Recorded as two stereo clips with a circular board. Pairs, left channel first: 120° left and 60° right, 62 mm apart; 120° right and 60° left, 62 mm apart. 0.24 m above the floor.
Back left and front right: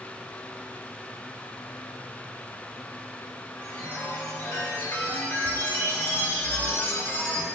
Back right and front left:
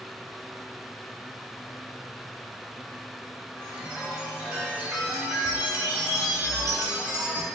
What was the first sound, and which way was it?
A chime, 110° left.